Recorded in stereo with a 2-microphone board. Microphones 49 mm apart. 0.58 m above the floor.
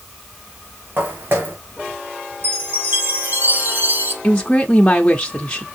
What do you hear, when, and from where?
1.0 s footsteps: 50° right (ahead or behind), 3.5 m
2.4 s a chime: 45° right (ahead or behind), 3 m
4.2 s a woman speaking: 20° left (ahead or behind), 1.1 m